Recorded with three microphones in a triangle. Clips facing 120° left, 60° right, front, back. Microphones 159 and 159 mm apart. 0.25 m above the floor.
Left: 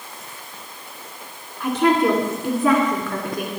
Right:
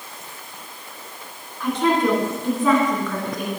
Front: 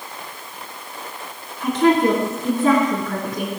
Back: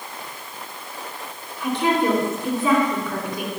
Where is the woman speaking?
40° left, 2.5 m.